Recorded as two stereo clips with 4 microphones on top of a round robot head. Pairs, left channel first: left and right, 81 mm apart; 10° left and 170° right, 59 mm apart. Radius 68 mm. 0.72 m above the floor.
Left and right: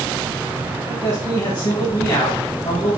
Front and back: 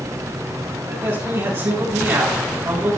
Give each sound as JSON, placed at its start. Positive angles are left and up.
{"t": 0.9, "sound": "a man speaking", "azimuth_deg": 150, "distance_m": 6.0}